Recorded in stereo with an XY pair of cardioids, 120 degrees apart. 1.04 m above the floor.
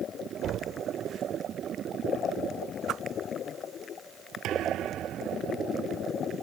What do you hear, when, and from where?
0.4 s knocking: 65° right
2.9 s a whoosh: 65° right
4.4 s a thud: 70° right